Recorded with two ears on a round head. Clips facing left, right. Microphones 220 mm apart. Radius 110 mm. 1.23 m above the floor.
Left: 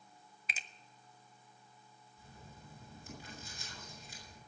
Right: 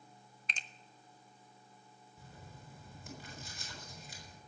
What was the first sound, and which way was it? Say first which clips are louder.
A finger snap: even; 5° left (ahead or behind).